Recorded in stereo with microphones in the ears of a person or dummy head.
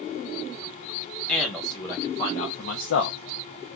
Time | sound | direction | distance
1.3 | a man speaking | centre (ahead or behind) | 1.3 m